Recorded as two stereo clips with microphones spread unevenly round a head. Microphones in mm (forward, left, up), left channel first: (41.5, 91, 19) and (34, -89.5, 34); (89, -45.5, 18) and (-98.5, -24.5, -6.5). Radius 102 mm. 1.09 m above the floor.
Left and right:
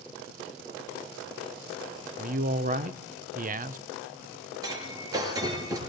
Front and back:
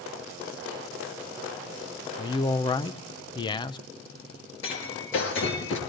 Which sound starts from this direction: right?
A man speaking, at 2.2 s.